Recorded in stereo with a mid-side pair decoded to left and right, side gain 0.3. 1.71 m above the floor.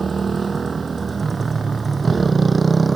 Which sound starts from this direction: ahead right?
A motorcycle, at 0.0 s.